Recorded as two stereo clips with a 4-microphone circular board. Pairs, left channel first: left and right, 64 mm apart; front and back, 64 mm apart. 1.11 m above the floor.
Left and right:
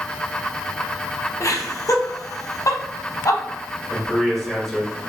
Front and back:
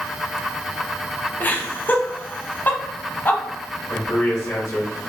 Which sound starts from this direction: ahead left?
Laughter, at 1.4 s.